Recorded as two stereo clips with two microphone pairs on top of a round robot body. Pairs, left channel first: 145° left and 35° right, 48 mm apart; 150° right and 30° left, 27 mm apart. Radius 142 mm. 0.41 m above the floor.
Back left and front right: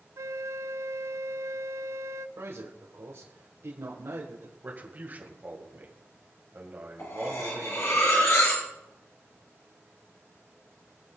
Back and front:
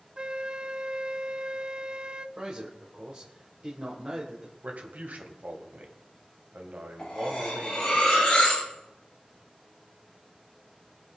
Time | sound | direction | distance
0.2 | a flute | 25° right | 0.5 m
2.4 | a man speaking | 20° right | 3 m
4.6 | a man speaking | 20° left | 3 m
7.0 | cutlery clinking | 140° left | 6 m